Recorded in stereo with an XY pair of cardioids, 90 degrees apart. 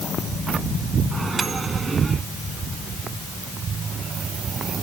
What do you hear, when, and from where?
1.1 s a microwave: 35° right